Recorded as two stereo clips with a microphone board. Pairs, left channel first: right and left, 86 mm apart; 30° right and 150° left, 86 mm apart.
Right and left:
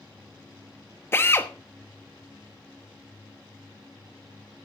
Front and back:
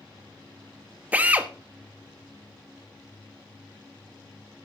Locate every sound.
1.1 s a drill: 145° right, 1.1 m